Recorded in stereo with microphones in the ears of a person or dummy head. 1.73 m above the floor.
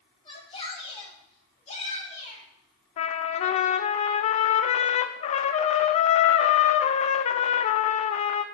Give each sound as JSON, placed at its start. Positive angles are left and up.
{"t": 0.2, "sound": "a shout", "side_deg": 30, "distance_m": 5.0}
{"t": 3.0, "sound": "a trumpet", "side_deg": 40, "distance_m": 0.6}